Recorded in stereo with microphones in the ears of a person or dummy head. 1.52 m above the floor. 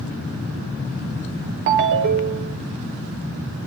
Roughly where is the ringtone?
Right.